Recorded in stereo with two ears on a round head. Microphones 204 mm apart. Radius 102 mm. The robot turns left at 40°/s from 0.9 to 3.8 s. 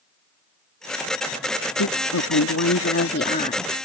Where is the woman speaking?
100° left; by 3.7 s 20° left.